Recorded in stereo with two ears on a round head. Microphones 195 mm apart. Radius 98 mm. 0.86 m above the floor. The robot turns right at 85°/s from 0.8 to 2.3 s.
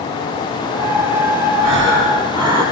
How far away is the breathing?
About 7 m.